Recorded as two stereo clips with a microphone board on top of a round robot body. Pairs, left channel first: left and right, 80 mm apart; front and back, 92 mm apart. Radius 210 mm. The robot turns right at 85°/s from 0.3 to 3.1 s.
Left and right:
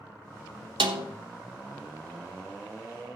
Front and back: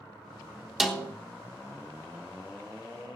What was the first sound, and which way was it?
A snare drum, 95° right.